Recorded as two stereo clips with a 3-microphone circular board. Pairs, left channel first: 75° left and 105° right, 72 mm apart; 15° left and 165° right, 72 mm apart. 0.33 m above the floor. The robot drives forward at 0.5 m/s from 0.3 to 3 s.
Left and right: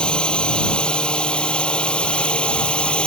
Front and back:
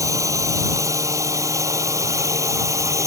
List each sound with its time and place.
0.0 s a drone: 155° left; by 3.1 s 150° left